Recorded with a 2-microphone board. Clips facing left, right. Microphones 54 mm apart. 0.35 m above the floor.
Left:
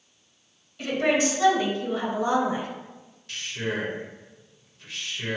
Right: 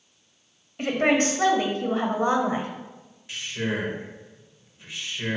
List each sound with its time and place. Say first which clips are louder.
0.8 s a woman speaking: right 2 dB; 45° right (ahead or behind), 1.6 m; by 2.7 s 40° right (ahead or behind), 1.5 m
3.3 s a man speaking: right 1 dB; 15° right (ahead or behind), 1.4 m